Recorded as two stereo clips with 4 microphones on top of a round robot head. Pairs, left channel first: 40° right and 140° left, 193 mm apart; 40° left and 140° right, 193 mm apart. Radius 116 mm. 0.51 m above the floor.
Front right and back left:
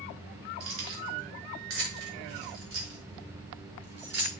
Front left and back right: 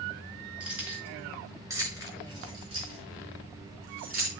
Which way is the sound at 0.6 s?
135° left.